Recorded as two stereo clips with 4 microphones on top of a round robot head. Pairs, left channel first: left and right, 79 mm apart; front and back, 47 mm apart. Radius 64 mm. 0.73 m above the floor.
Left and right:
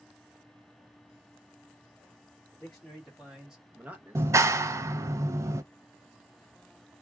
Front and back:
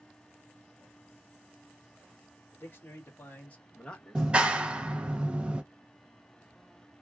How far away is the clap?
About 0.6 m.